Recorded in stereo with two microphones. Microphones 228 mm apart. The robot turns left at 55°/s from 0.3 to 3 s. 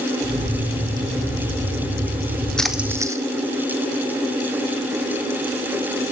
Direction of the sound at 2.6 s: 5° left (ahead or behind).